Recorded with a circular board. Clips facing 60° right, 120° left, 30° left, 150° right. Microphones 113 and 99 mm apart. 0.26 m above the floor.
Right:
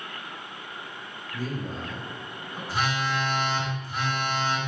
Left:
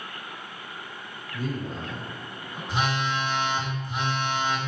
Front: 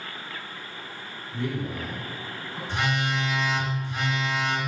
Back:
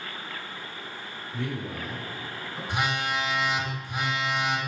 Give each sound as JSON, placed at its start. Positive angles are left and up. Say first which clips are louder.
{"t": 1.3, "sound": "a man speaking", "louder": "left 1 dB, front 3 dB", "azimuth_deg": 70, "distance_m": 1.7}
{"t": 2.7, "sound": "a phone buzzing", "louder": "left 1 dB, front 1 dB", "azimuth_deg": 150, "distance_m": 0.6}